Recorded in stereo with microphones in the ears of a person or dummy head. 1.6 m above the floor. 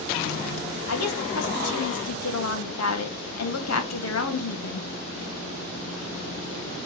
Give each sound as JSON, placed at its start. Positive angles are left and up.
{"t": 0.9, "sound": "a woman speaking", "side_deg": 85, "distance_m": 1.6}